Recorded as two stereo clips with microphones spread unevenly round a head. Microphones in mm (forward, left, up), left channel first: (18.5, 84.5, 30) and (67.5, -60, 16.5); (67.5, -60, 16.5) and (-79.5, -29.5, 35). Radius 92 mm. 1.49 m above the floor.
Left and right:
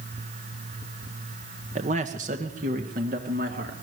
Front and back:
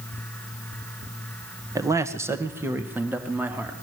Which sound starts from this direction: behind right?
A man speaking, at 1.8 s.